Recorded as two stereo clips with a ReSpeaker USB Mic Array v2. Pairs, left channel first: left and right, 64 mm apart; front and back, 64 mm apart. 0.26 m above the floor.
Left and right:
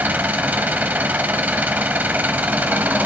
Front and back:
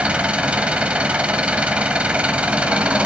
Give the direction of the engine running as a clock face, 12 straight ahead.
4 o'clock.